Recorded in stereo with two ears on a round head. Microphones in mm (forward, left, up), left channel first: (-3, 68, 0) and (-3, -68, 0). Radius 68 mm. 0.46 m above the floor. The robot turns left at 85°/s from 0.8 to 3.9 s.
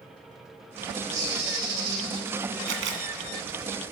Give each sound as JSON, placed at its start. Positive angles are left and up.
{"t": 1.1, "sound": "a bird", "azimuth_deg": -20, "distance_m": 5.5}
{"t": 2.7, "sound": "a camera shutter", "side_deg": -65, "distance_m": 1.2}